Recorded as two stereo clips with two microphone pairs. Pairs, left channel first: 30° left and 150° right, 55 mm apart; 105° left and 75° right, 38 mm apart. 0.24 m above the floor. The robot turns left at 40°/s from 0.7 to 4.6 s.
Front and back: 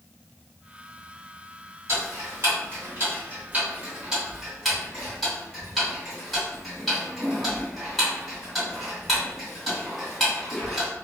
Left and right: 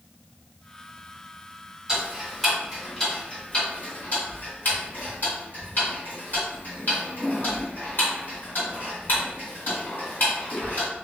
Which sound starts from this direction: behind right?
Ticking, at 1.9 s.